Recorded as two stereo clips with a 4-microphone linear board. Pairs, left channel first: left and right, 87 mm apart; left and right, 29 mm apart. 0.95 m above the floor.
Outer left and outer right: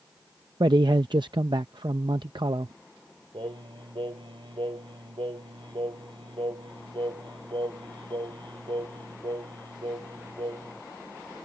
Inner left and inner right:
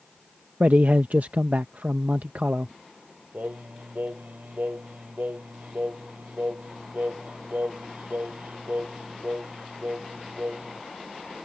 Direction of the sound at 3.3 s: 75° right (ahead or behind).